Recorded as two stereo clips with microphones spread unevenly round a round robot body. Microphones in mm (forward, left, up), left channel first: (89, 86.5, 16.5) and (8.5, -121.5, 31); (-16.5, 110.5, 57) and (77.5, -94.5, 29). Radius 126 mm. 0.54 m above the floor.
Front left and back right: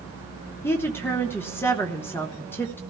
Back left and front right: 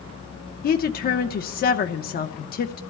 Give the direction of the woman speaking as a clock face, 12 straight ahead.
7 o'clock.